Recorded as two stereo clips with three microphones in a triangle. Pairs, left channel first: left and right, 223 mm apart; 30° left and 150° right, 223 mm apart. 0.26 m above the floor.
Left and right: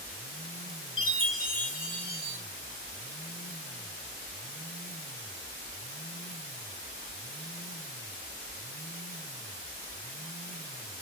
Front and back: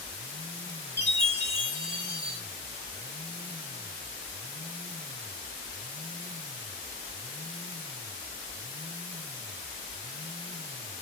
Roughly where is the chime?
Behind right.